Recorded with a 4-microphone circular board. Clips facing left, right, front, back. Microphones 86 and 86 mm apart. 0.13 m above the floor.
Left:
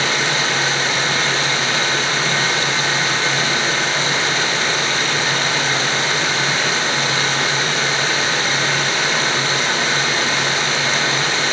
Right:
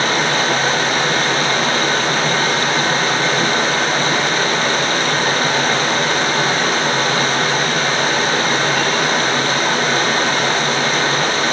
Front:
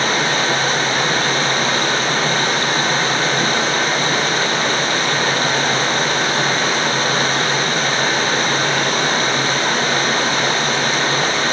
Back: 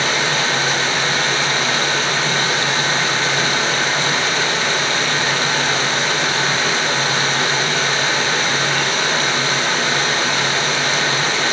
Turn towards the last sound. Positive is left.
turn(degrees=-45)